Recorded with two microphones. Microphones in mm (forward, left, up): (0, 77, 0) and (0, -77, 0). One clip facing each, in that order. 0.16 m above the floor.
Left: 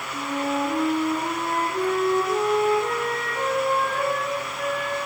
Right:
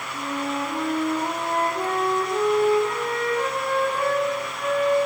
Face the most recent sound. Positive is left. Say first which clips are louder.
# left 2 dB
turn(degrees=45)  # may be behind; listen again after turning